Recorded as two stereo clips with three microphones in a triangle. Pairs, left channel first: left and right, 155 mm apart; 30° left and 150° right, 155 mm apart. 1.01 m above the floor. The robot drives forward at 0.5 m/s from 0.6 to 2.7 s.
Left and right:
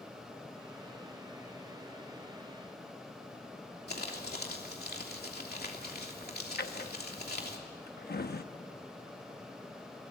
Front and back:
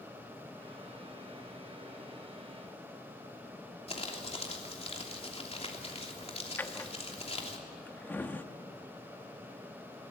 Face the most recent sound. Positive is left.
turn(degrees=110)